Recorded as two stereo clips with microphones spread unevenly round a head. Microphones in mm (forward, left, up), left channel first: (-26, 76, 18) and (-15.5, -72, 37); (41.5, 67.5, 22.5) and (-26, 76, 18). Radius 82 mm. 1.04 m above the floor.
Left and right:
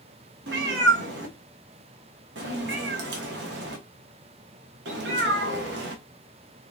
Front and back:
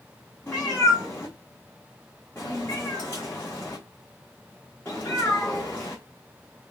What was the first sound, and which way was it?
A cat meowing, 90° right.